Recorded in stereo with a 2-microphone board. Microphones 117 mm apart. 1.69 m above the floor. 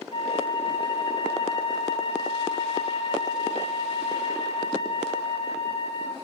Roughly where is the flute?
Left.